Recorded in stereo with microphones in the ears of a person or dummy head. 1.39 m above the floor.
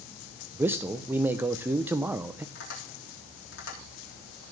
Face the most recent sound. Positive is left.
turn(degrees=70)  # may be behind; listen again after turning